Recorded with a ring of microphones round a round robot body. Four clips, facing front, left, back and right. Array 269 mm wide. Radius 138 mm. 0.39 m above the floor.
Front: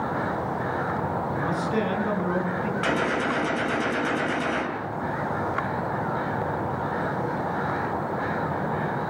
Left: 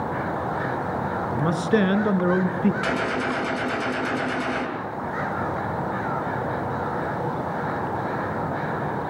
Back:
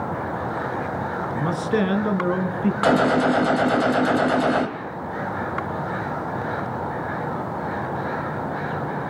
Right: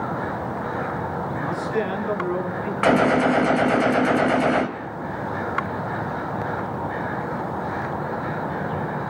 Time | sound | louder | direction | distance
1.3 | a man speaking | left 5 dB, back 6 dB | 115° left | 5 m
2.8 | a gunshot | right 7 dB, back 9 dB | 135° right | 2.5 m